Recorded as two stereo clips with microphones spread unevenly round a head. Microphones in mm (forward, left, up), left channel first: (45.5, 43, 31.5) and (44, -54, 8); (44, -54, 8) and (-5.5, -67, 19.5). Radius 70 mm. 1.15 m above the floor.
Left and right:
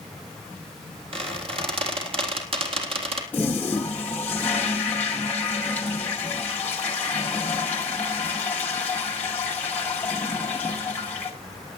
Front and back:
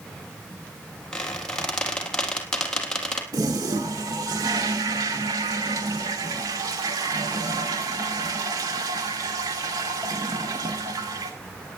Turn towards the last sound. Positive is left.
turn(degrees=165)